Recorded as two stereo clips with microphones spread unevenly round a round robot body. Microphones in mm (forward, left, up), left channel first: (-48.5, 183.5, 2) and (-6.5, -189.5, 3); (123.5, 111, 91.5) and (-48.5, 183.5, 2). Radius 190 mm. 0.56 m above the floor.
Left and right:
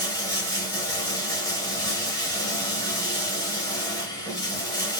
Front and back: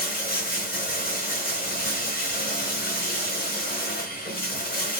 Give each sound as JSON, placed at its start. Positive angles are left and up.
{"t": 0.0, "sound": "running water", "azimuth_deg": 15, "distance_m": 0.9}